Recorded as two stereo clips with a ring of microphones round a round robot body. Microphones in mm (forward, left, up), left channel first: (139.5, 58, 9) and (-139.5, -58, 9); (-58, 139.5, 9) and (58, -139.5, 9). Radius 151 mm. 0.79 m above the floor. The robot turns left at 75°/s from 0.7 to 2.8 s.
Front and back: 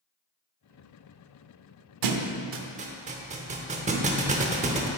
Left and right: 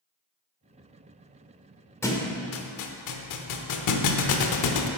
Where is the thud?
165° right, 0.7 m; by 4.9 s 135° left, 0.7 m.